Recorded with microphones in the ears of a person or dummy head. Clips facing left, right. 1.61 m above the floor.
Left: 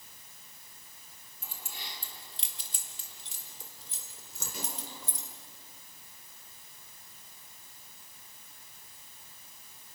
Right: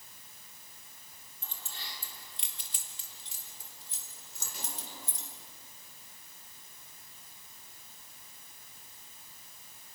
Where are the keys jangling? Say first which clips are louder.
Left 2 dB; 10° left (ahead or behind), 2.5 m; by 5.3 s 80° left, 4 m.